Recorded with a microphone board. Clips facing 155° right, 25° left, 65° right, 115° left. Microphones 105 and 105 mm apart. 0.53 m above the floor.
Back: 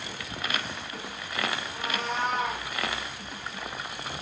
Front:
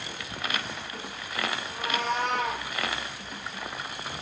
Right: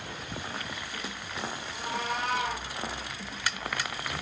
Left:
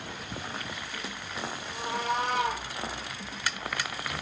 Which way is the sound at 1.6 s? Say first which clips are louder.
Front 3 dB, left 4 dB; 55° left.